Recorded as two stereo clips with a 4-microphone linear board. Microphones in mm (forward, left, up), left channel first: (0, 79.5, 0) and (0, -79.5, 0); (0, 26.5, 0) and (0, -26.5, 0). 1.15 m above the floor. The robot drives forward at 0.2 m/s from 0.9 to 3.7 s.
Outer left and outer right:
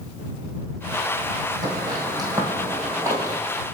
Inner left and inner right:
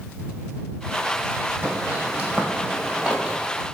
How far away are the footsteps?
About 2.5 m.